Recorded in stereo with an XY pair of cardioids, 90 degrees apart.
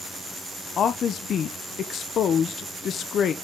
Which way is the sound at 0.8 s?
70° left.